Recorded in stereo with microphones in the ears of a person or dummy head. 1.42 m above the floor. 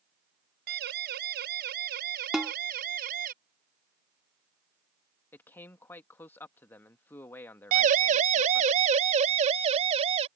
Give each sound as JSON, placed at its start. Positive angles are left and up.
{"t": 0.7, "sound": "a siren", "side_deg": -65}
{"t": 2.3, "sound": "a snare drum", "side_deg": 0}
{"t": 5.3, "sound": "a man speaking", "side_deg": 15}
{"t": 7.7, "sound": "a siren", "side_deg": -50}